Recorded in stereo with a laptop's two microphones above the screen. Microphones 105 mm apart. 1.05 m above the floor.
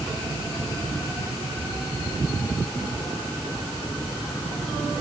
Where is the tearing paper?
I don't hear tearing paper.